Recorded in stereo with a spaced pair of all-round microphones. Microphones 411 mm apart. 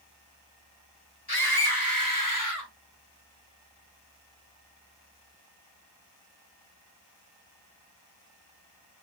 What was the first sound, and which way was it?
A scream, 65° left (ahead or behind).